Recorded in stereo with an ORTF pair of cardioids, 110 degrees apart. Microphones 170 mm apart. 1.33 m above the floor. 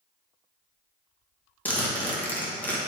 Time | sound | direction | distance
1.6 | a zipper | 10° left | 1.3 m